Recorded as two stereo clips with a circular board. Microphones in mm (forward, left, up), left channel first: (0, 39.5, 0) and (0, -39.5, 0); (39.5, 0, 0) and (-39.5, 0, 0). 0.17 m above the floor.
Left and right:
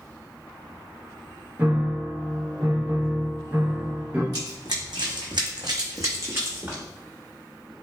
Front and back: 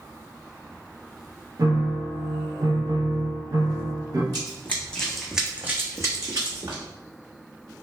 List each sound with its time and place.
1.6 s a piano: 150° right, 0.6 m
4.3 s running footsteps: 55° right, 0.8 m; by 6.8 s 150° right, 1.0 m